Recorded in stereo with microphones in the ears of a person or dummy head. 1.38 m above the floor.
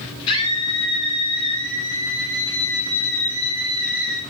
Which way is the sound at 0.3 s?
30° left (ahead or behind).